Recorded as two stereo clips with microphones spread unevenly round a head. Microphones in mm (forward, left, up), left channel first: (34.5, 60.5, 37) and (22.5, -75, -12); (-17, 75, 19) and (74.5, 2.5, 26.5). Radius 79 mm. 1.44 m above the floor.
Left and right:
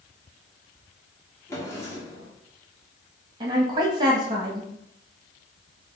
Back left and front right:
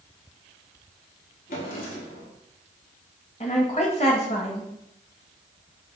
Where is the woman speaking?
165° right, 1.6 m.